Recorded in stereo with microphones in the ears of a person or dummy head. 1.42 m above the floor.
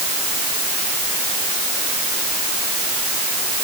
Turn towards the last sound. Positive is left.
No sound to turn to.